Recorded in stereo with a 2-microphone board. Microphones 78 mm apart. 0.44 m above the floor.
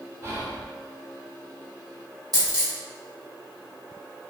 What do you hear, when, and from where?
0.2 s whispering: 30° right (ahead or behind), 1.2 m
2.3 s a dropped coin: 55° right (ahead or behind), 0.9 m